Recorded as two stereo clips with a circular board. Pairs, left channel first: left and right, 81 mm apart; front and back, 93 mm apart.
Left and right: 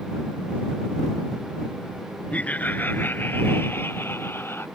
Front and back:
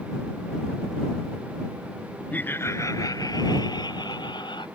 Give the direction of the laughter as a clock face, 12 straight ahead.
10 o'clock.